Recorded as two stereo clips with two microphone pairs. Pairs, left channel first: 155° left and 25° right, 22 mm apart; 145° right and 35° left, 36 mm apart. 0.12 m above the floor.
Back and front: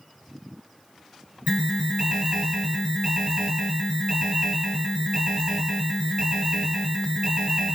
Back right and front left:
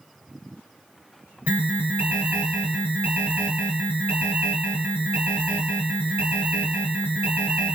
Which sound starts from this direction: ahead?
An alarm, at 1.5 s.